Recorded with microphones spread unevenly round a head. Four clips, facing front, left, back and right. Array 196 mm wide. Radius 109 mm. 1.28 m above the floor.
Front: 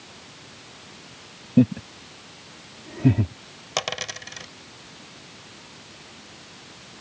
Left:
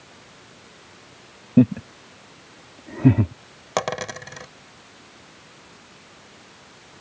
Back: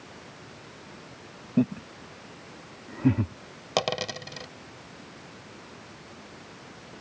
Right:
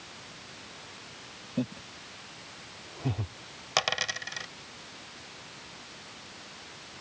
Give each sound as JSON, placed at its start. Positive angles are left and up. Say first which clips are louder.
{"t": 1.6, "sound": "laughter", "louder": "left 17 dB, front 6 dB", "azimuth_deg": 70}
{"t": 3.8, "sound": "a dropped coin", "louder": "left 6 dB, back 3 dB", "azimuth_deg": 120}